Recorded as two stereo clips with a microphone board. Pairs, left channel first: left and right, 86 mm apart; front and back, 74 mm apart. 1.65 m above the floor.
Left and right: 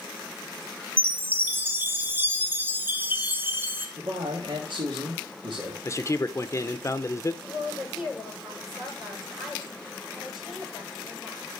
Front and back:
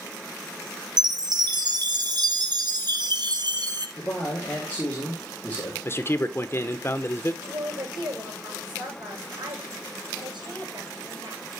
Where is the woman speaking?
175° right, 7 m.